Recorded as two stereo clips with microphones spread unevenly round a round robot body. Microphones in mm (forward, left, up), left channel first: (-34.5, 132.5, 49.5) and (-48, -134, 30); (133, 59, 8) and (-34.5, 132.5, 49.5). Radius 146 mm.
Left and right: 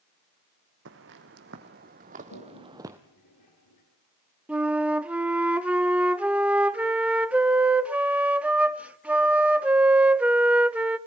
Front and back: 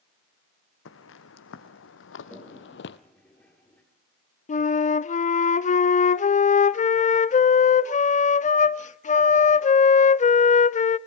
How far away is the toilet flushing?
About 5.5 m.